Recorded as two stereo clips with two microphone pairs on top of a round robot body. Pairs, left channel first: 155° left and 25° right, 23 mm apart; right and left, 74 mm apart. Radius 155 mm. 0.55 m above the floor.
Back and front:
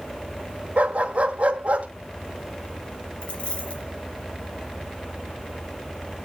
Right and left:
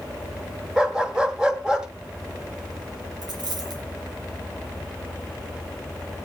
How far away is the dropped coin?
About 3 m.